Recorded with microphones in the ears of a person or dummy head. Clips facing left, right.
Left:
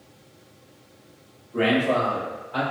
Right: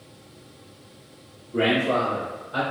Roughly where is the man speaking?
Right.